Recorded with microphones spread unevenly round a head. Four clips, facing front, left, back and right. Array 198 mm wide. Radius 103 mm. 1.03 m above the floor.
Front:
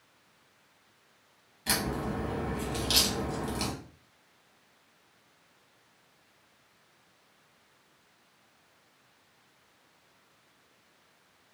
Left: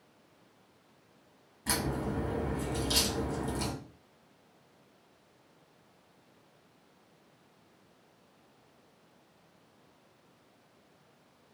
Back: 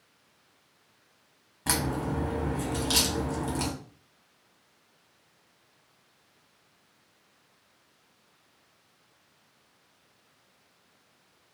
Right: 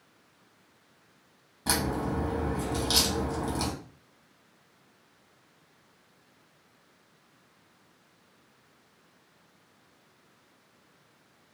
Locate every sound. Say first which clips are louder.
1.7 s a crack: right 4 dB, back 2 dB; 130° right, 0.8 m